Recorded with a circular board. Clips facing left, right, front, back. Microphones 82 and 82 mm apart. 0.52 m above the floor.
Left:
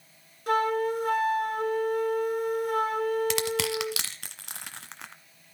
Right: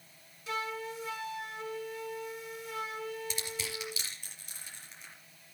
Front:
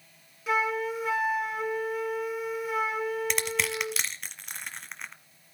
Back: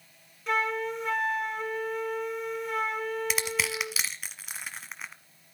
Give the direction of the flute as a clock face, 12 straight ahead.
9 o'clock.